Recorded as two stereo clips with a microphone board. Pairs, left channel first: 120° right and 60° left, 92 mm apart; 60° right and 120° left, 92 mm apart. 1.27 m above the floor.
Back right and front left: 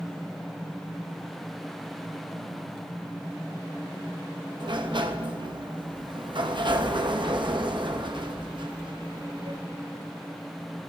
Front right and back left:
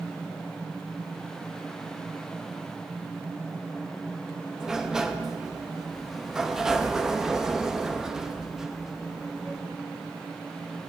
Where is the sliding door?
35° left, 0.9 m.